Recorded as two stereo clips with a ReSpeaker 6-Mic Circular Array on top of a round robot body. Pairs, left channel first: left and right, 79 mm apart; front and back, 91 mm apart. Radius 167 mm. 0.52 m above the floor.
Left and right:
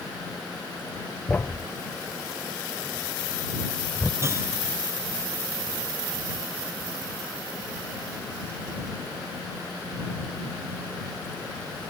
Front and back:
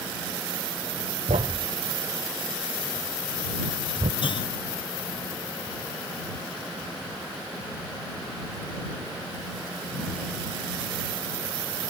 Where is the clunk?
30° right.